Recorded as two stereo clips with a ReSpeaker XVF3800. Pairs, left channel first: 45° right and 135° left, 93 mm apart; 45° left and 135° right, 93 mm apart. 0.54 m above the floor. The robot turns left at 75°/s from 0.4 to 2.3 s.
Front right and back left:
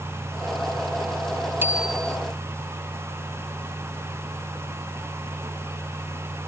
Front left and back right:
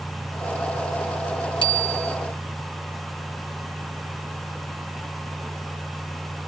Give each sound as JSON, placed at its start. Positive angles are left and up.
{"t": 1.6, "sound": "a bicycle bell", "azimuth_deg": 70}